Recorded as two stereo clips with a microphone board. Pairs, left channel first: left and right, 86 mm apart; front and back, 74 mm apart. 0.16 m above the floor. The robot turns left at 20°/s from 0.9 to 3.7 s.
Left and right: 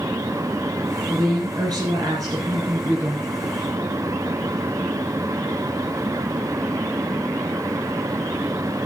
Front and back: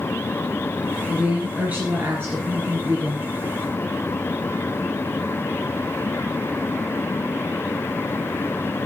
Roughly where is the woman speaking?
Right.